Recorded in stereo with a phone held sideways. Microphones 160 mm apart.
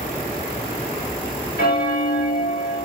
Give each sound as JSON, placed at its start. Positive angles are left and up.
{"t": 1.6, "sound": "a bell", "side_deg": 65, "distance_m": 1.0}